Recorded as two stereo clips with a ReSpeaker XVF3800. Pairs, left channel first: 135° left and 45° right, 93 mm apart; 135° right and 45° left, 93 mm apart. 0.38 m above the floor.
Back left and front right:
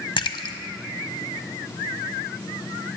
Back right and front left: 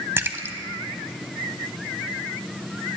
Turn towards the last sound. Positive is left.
turn(degrees=110)